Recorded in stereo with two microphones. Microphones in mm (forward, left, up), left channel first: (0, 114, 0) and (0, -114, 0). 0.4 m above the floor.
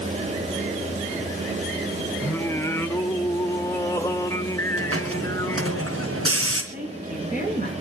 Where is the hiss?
75° right (ahead or behind), 3.5 m.